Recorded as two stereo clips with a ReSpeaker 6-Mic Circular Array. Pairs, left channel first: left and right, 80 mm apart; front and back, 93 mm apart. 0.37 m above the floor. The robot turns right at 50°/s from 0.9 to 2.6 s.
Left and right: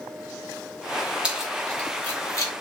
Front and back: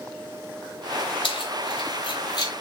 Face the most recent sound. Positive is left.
turn(degrees=55)